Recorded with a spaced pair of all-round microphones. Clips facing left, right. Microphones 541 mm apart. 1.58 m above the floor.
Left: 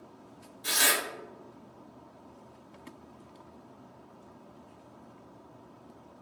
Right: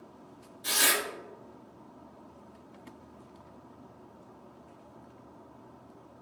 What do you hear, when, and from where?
0.6 s tearing paper: centre (ahead or behind), 0.5 m